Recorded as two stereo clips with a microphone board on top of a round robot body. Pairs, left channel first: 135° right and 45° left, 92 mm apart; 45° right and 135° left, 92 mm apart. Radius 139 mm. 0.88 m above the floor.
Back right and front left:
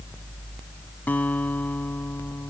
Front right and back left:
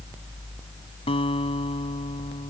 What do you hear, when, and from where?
1.1 s a guitar: 65° right